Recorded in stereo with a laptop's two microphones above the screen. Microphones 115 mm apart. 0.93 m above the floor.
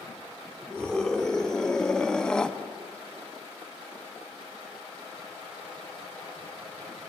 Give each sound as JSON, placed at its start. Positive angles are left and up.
{"t": 0.7, "sound": "a scream", "side_deg": 5, "distance_m": 3.0}